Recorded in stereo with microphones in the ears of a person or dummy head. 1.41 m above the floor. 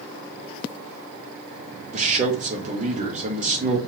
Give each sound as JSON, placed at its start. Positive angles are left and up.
{"t": 1.9, "sound": "a man speaking", "side_deg": -40, "distance_m": 0.7}